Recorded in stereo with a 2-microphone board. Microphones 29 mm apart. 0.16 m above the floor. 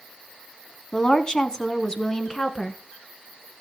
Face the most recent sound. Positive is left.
turn(degrees=15)  # may be behind; listen again after turning